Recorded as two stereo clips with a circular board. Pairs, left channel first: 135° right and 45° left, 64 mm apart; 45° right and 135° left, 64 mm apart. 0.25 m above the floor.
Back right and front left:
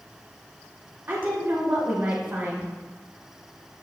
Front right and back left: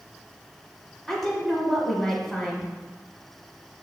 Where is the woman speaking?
50° left, 1.2 m.